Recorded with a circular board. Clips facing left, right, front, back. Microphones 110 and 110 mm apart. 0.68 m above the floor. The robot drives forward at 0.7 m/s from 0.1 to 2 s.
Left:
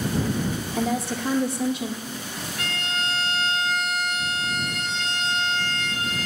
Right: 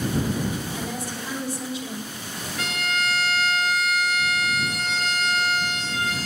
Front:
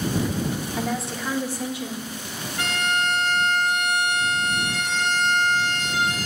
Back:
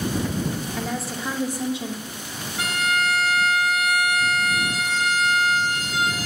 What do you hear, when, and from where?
0.8 s a woman speaking: 80° left, 1.2 m; by 2.1 s 125° left, 1.3 m
2.6 s a violin: 100° right, 1.1 m